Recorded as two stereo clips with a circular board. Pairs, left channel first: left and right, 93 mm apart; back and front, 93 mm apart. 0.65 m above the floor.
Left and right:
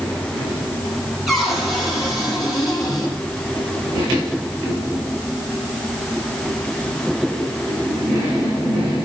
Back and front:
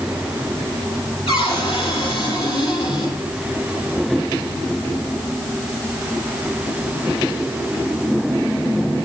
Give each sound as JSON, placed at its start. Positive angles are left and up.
{"t": 1.3, "sound": "a cupboard door", "azimuth_deg": 180, "distance_m": 8.0}